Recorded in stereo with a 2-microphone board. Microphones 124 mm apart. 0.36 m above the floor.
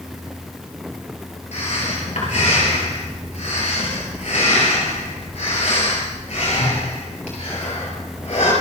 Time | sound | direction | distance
1.5 | breathing | 65° left (ahead or behind) | 6 m